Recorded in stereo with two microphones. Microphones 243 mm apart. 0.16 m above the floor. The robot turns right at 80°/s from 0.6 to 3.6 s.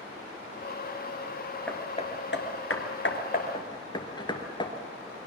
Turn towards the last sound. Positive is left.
turn(degrees=20)  # may be behind; listen again after turning